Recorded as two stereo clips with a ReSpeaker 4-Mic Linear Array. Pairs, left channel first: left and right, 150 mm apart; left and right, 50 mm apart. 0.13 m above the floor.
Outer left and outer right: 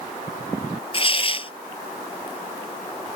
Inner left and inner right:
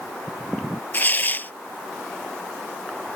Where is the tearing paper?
40° left (ahead or behind).